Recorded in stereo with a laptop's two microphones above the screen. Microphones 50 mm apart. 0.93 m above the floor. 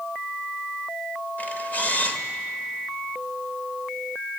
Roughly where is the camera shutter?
Left.